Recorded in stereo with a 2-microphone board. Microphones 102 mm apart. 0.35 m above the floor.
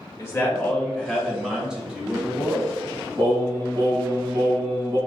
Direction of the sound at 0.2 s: 25° left (ahead or behind).